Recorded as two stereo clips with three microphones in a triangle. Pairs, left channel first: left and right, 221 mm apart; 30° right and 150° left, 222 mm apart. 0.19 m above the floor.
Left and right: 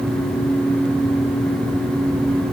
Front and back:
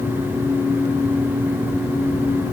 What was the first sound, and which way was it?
Only background noise.